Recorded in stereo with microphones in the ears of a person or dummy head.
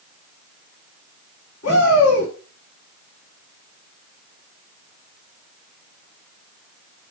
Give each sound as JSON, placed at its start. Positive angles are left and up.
{"t": 1.6, "sound": "a shout", "side_deg": 50, "distance_m": 5.0}